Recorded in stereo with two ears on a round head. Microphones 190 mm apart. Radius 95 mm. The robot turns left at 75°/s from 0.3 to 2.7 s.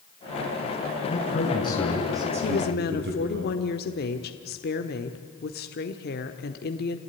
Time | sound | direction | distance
1.1 | a man speaking | 65° left | 6 m
2.4 | a woman speaking | 55° left (ahead or behind) | 1.3 m